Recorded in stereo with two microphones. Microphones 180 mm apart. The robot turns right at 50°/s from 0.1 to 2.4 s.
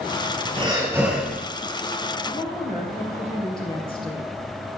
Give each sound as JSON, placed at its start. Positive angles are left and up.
{"t": 0.6, "sound": "breathing", "azimuth_deg": -35, "distance_m": 3.5}
{"t": 2.2, "sound": "a woman speaking", "side_deg": 35, "distance_m": 3.5}